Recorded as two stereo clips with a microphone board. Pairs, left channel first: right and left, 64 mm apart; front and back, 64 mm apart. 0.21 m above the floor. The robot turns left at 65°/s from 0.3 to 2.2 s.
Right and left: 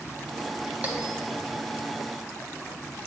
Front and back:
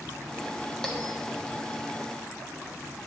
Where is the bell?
70° left, 0.6 m; by 1.2 s 50° left, 0.6 m.